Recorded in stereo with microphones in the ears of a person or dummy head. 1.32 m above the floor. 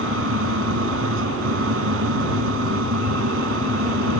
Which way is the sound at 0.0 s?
80° right.